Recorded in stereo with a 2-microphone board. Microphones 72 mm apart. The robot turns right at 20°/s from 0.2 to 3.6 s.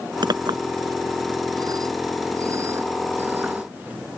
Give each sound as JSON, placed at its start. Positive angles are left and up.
{"t": 0.2, "sound": "a clink", "side_deg": -90}